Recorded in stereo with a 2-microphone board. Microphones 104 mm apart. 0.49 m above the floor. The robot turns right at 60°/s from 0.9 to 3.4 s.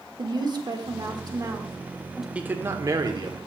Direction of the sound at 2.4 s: 160° right.